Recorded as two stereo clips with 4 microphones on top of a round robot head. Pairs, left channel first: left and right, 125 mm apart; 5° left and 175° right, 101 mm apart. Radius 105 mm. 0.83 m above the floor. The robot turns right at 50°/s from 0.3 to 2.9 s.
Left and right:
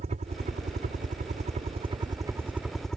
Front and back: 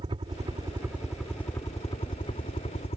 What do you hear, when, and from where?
0.0 s a helicopter: 125° right; by 3.0 s 5° left